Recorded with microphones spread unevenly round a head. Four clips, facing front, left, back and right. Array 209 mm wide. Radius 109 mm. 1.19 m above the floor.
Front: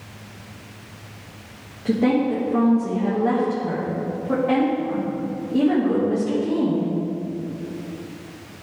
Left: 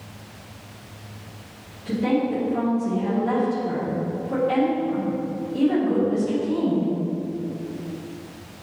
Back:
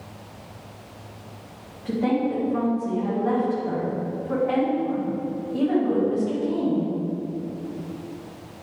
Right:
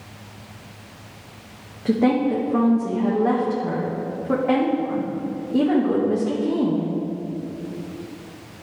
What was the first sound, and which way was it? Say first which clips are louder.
A woman speaking: right 4 dB, front 4 dB; 55° right.